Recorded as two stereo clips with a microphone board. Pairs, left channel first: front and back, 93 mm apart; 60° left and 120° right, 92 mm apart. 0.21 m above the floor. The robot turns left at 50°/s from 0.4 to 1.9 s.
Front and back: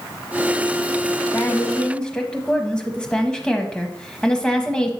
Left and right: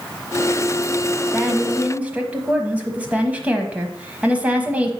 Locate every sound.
1.3 s a woman speaking: 40° right, 1.0 m; by 4.9 s 70° right, 1.0 m